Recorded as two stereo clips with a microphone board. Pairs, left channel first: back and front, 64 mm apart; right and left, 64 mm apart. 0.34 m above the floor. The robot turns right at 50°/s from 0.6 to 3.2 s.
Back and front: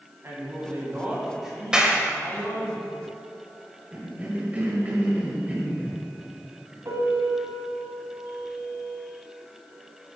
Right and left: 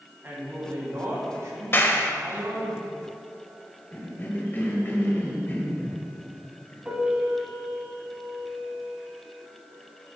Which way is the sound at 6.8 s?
15° left.